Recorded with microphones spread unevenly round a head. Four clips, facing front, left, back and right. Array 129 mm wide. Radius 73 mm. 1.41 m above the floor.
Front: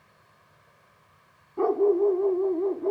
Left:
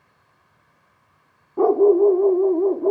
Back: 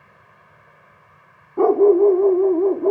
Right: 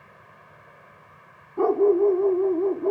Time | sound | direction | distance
0.0 | an insect | 115° right | ?
1.6 | a dog barking | 135° left | ?